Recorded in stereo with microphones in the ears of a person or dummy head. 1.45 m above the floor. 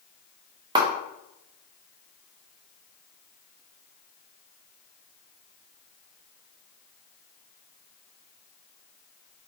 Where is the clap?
20° right (ahead or behind), 0.8 m.